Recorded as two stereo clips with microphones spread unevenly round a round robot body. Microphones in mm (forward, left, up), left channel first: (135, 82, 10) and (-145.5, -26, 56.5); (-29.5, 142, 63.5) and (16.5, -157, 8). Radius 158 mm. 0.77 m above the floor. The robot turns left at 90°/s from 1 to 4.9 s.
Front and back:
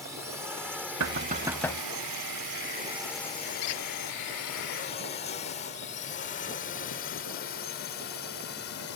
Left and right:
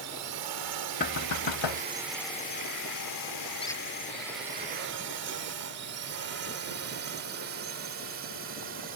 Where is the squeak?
25° left; by 3.8 s 5° left.